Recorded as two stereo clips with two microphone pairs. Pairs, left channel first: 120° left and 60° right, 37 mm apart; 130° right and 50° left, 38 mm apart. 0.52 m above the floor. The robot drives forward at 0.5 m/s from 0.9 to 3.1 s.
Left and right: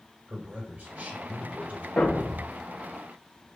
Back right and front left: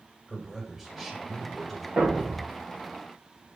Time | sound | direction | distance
0.3 | a man speaking | 40° right | 1.9 m
2.0 | a thud | 90° left | 2 m